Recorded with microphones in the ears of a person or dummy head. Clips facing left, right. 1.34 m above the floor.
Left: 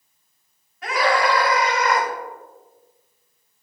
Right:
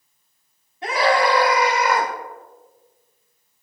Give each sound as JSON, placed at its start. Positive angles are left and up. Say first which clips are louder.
{"t": 0.8, "sound": "a scream", "louder": "right 2 dB", "side_deg": -15, "distance_m": 3.5}